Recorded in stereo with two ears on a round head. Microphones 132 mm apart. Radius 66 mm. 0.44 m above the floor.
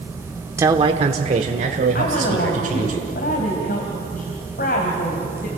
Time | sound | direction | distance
0.6 | a man speaking | 20° right (ahead or behind) | 0.8 m
1.9 | a woman speaking | 60° left (ahead or behind) | 3 m